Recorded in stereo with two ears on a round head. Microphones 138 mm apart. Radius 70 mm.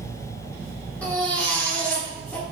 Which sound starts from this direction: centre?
A baby crying, at 1.0 s.